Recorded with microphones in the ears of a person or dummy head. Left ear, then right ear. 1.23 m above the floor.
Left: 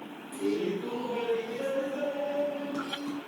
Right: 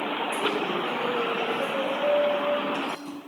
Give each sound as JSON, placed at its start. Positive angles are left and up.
{"t": 0.3, "sound": "laughter", "side_deg": 10, "distance_m": 1.1}